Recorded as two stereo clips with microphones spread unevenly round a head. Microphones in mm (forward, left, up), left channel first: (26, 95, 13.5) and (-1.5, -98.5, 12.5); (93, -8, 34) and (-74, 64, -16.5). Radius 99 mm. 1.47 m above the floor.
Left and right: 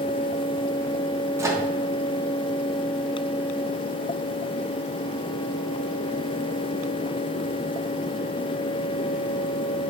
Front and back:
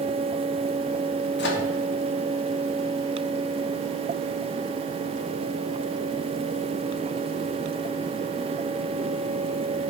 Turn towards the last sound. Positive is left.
turn(degrees=-25)